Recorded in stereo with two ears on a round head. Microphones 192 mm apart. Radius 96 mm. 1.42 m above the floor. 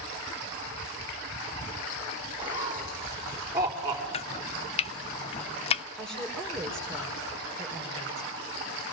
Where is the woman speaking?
Centre (ahead or behind), 4 m.